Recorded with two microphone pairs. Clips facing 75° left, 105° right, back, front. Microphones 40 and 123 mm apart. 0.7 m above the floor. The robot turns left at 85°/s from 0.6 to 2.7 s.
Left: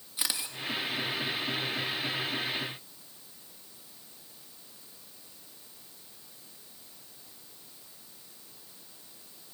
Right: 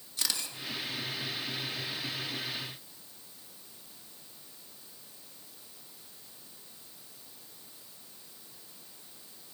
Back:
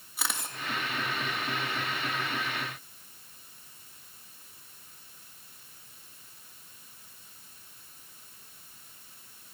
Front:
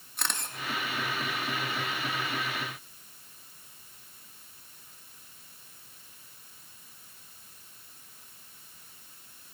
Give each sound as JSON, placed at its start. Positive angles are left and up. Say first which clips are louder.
{"t": 0.2, "sound": "a camera shutter", "louder": "left 1 dB, even", "azimuth_deg": 100, "distance_m": 1.2}